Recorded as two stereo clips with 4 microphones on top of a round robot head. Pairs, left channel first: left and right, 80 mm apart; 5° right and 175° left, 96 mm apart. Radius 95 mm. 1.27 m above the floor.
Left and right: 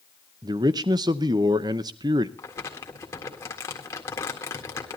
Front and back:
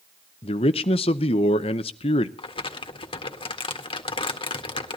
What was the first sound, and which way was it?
A man speaking, 40° right.